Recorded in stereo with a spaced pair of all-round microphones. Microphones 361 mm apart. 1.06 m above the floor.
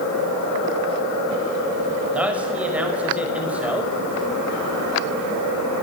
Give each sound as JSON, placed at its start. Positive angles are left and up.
{"t": 2.1, "sound": "a man speaking", "side_deg": -5, "distance_m": 5.5}